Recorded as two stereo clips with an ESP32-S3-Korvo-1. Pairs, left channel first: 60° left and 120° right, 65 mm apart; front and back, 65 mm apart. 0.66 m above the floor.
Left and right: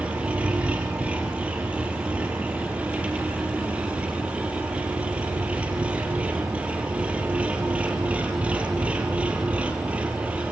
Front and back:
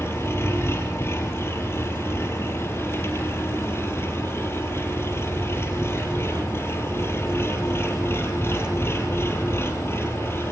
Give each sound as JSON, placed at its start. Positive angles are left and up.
{"t": 0.0, "sound": "an engine running", "azimuth_deg": -50, "distance_m": 4.0}